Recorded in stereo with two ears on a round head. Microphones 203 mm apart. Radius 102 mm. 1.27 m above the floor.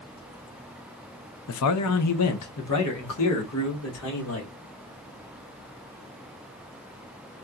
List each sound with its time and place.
1.5 s a man speaking: 70° left (ahead or behind), 0.5 m